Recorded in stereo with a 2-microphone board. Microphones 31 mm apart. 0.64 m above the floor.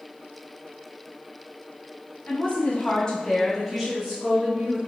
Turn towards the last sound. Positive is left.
turn(degrees=-20)  # may be behind; listen again after turning